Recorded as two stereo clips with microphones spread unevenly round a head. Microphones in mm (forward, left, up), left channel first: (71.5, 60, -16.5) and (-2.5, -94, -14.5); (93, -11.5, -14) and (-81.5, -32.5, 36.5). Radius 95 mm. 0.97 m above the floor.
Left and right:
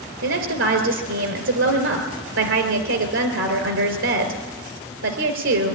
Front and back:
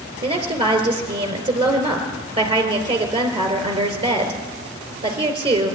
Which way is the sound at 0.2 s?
110° right.